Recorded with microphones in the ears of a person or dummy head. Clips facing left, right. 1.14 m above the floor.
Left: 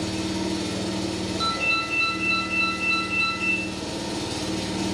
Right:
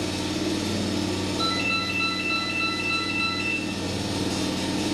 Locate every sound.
0.0 s an engine running: 15° right (ahead or behind), 1.8 m
1.4 s a ringtone: 75° right (ahead or behind), 1.5 m